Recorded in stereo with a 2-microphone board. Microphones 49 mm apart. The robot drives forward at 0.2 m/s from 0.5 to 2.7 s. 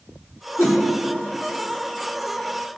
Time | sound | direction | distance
0.6 | a whoosh | 60° left (ahead or behind) | 3.5 m